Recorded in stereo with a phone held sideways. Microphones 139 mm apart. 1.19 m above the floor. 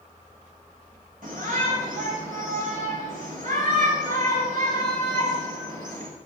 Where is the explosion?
No explosion in this recording.